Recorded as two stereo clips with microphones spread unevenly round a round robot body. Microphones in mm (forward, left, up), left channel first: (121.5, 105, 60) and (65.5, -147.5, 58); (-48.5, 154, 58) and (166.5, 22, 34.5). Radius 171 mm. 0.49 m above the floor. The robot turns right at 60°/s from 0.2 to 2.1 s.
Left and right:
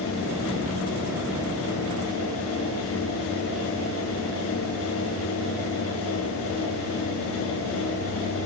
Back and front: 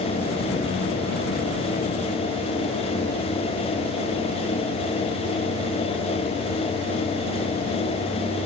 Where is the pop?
No pop in this recording.